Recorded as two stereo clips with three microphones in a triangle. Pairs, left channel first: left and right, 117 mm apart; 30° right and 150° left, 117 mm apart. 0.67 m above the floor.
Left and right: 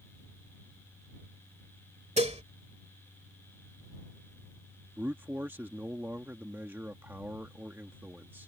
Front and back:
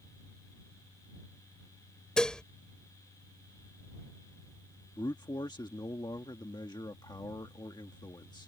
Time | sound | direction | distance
2.2 | dishes clattering | 115° right | ?
5.0 | a man speaking | 30° right | ?